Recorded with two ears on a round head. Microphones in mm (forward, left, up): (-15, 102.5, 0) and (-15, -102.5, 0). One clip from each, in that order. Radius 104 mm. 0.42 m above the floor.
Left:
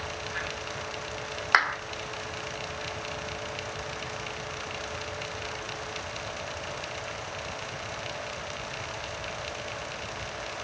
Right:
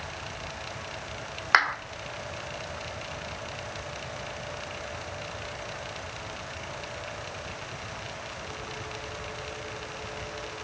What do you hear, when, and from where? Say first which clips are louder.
1.5 s a clap: right 1 dB; 5° right (ahead or behind), 1.1 m